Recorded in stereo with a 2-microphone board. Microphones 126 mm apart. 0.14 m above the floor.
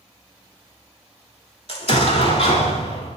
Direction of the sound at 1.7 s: 50° left (ahead or behind).